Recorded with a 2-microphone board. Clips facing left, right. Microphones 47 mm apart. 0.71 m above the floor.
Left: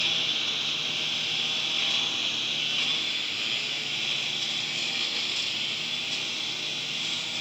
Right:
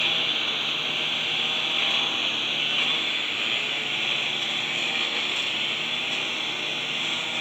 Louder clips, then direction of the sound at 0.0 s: Right 3 dB; 25° right (ahead or behind).